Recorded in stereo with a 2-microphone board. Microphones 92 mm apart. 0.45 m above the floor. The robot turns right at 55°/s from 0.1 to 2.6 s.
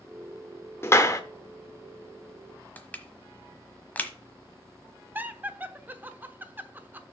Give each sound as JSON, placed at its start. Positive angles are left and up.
{"t": 0.8, "sound": "a clap", "side_deg": 25, "distance_m": 0.9}
{"t": 2.8, "sound": "crushing", "side_deg": 20, "distance_m": 1.1}
{"t": 5.2, "sound": "laughter", "side_deg": -20, "distance_m": 0.8}